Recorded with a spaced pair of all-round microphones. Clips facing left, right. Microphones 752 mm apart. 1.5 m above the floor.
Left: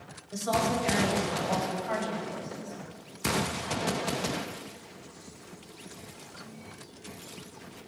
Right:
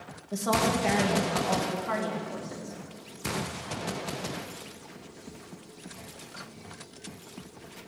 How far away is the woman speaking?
About 1.7 m.